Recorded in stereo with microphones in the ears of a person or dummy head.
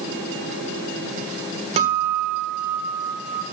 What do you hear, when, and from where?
1.8 s a guitar: 35° right (ahead or behind), 1.3 m